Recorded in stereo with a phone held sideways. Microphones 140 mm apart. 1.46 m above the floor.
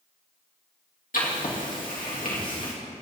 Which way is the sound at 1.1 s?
80° left.